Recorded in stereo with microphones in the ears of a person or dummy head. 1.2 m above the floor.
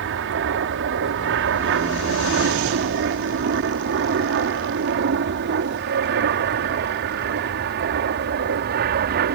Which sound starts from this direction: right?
An aircraft, at 0.0 s.